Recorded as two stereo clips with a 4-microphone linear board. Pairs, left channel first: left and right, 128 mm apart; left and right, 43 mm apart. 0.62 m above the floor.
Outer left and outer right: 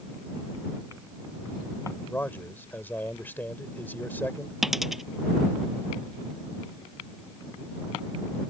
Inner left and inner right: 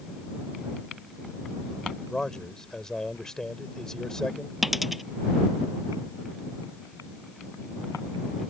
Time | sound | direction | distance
2.1 | a man speaking | 15° left (ahead or behind) | ?
4.6 | a dropped coin | centre (ahead or behind) | ?